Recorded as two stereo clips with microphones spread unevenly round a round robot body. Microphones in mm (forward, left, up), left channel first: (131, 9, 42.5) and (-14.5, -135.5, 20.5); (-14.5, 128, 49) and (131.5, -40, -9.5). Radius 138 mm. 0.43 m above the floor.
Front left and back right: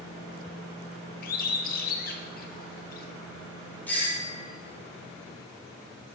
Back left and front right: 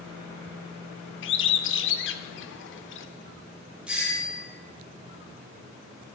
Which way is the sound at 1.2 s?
90° left.